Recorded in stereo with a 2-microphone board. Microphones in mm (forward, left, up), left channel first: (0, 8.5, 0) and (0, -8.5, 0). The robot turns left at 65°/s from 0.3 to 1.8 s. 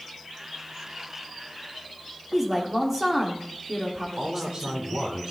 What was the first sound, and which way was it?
A woman speaking, 20° right (ahead or behind).